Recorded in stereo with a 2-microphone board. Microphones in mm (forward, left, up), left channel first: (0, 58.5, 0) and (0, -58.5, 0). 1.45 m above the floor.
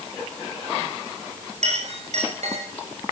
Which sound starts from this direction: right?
A clink, at 1.6 s.